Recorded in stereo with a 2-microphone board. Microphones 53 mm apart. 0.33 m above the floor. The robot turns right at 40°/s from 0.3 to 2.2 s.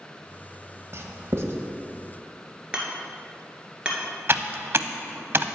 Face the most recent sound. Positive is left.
turn(degrees=-50)  # may be behind; listen again after turning